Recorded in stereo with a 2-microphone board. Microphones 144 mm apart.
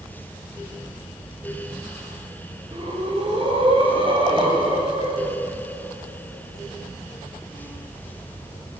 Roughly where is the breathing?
Right.